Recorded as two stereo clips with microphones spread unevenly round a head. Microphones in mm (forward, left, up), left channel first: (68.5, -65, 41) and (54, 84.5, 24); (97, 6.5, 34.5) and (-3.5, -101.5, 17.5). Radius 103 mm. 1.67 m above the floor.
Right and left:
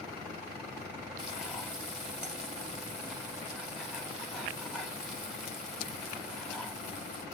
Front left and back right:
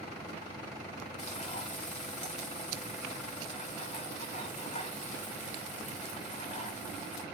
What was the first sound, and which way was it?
Frying, 10° left.